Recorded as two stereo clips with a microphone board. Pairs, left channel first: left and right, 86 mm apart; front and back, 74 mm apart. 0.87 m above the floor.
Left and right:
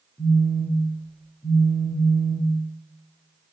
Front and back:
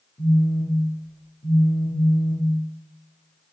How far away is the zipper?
No zipper in this recording.